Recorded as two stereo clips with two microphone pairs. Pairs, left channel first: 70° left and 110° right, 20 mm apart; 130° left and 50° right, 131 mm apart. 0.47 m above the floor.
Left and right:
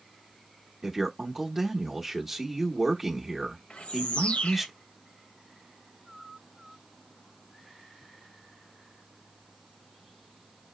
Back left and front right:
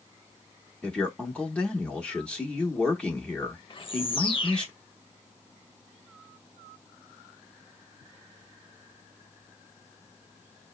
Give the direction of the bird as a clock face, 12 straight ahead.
9 o'clock.